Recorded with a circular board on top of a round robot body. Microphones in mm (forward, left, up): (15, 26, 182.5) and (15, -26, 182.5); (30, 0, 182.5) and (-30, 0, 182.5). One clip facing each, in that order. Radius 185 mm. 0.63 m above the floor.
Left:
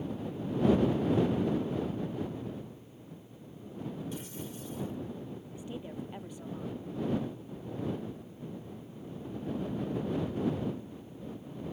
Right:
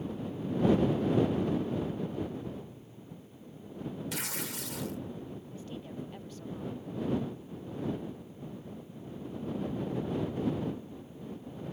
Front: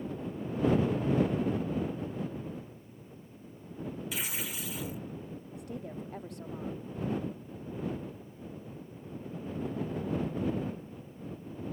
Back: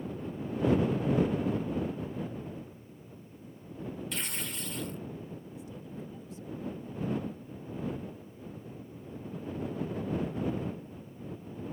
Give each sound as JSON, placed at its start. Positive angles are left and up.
{"t": 4.1, "sound": "tearing paper", "azimuth_deg": -85}
{"t": 5.5, "sound": "a woman speaking", "azimuth_deg": 20}